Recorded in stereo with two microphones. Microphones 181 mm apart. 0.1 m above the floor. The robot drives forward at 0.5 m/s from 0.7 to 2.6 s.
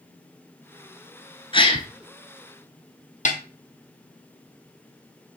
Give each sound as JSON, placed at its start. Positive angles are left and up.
{"t": 1.5, "sound": "a gasp", "side_deg": 30, "distance_m": 0.9}
{"t": 3.2, "sound": "a snare drum", "side_deg": 40, "distance_m": 1.1}